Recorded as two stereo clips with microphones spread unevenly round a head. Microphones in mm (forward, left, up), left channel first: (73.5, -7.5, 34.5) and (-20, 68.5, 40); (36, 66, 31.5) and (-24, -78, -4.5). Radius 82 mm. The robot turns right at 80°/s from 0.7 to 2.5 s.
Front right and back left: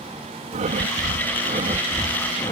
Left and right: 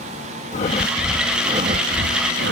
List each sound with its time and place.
0.5 s breathing: 115° left; by 2.5 s 100° right